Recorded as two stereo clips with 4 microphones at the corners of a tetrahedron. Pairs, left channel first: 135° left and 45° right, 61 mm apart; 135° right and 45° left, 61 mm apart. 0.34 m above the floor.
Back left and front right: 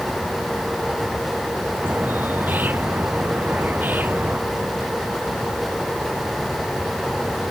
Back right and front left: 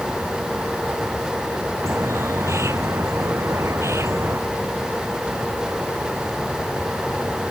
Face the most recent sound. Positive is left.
turn(degrees=15)